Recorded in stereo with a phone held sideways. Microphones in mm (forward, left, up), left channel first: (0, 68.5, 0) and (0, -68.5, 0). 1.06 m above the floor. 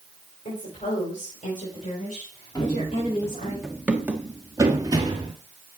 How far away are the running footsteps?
About 1.2 m.